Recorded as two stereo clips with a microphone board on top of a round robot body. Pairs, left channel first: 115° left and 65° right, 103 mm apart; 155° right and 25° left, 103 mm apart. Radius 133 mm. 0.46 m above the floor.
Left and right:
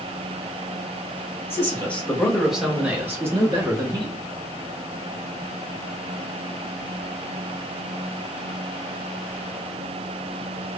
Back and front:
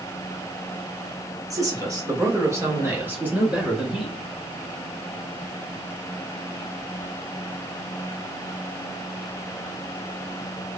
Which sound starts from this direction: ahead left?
A man speaking, at 1.5 s.